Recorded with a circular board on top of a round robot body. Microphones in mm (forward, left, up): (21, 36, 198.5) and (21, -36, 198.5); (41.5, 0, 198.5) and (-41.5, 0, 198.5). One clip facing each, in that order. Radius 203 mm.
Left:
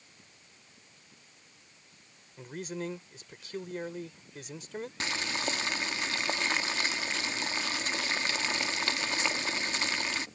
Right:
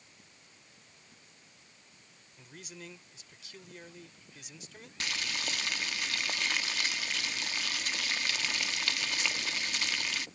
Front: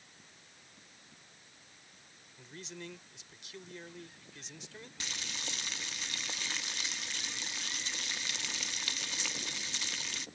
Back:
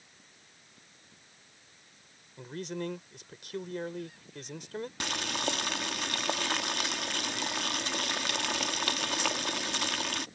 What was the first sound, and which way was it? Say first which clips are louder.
A man speaking: left 12 dB, back 11 dB; 140° left.